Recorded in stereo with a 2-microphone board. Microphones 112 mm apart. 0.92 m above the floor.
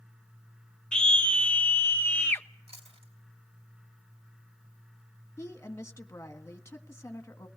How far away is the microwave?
No microwave in this recording.